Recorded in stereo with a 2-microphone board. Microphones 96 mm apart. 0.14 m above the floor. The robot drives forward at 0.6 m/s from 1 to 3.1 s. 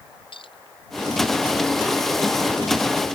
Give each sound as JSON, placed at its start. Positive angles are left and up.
{"t": 0.3, "sound": "a clink", "side_deg": 60}